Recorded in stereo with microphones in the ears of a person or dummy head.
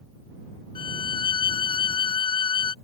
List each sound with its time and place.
0.8 s a violin: 30° left (ahead or behind)